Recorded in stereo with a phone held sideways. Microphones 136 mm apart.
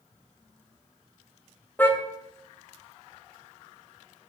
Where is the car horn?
15° left (ahead or behind), 3 m.